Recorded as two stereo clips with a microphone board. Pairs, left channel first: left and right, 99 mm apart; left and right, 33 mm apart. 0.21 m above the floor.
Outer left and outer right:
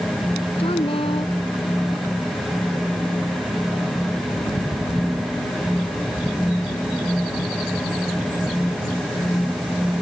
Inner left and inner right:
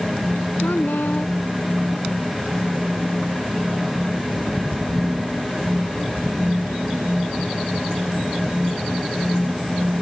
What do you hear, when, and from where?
0.6 s a woman speaking: 70° left (ahead or behind)